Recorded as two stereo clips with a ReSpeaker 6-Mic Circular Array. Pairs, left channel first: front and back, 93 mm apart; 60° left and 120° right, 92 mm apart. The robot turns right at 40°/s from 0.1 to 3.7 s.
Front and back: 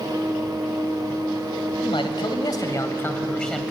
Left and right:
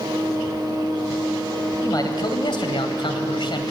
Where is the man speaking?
15° left, 3 m; by 3.7 s 90° left, 3 m.